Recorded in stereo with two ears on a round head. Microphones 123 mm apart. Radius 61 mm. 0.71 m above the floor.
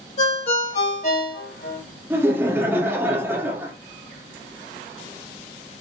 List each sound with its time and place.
0.2 s a ringtone: 55° left (ahead or behind), 3 m
2.1 s laughter: 15° right (ahead or behind), 1.6 m